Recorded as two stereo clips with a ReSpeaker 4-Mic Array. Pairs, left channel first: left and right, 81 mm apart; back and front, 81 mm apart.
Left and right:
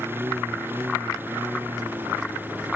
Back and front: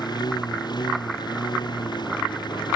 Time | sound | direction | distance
0.0 | a lawn mower | 155° right | ?